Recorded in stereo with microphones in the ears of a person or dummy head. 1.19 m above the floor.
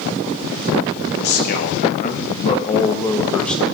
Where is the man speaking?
55° left (ahead or behind), 1.7 m; by 3.6 s 5° left (ahead or behind), 1.0 m.